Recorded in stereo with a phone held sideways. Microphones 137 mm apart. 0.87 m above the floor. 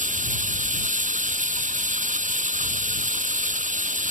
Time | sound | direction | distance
0.0 | running water | 85° right | ?